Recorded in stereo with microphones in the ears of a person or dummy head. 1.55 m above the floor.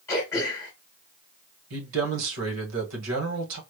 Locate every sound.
0.1 s throat clearing: 15° left (ahead or behind), 1.3 m
1.7 s a man speaking: 80° right, 1.5 m